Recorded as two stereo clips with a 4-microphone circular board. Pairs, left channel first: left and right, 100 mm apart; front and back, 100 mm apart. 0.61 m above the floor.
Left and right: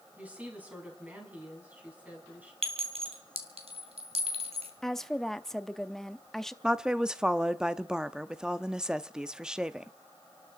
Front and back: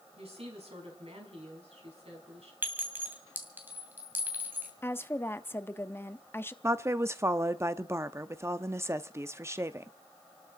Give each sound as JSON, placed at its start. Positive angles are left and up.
{"t": 0.2, "sound": "a woman speaking", "azimuth_deg": -165, "distance_m": 5.0}
{"t": 2.6, "sound": "a clink", "azimuth_deg": -110, "distance_m": 2.0}
{"t": 4.8, "sound": "a woman speaking", "azimuth_deg": 10, "distance_m": 0.7}
{"t": 6.6, "sound": "a woman speaking", "azimuth_deg": -165, "distance_m": 0.6}